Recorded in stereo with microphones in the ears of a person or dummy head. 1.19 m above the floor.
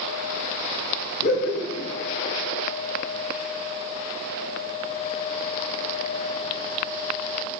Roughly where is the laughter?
Left.